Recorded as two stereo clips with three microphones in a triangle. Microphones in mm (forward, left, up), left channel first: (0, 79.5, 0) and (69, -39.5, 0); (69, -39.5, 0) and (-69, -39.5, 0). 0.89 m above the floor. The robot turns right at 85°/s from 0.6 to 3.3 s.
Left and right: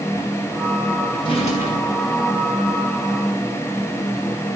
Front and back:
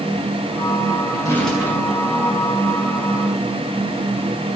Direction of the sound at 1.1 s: 55° left.